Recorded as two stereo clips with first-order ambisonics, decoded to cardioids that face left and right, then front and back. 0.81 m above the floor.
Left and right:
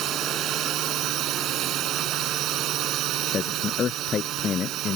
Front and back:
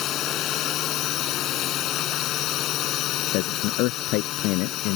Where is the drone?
45° right.